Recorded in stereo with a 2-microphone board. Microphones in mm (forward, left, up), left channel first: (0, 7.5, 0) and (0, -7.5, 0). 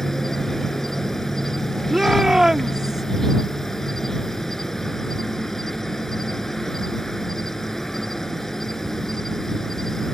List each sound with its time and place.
0.0 s an insect: 25° left (ahead or behind)
1.9 s a shout: 50° right (ahead or behind)